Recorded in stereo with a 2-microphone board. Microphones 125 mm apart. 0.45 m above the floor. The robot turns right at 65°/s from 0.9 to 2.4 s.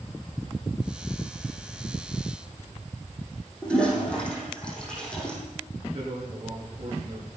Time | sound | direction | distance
3.6 | a toilet flushing | 10° left (ahead or behind) | 5.5 m
5.9 | a man speaking | 50° right (ahead or behind) | 6.5 m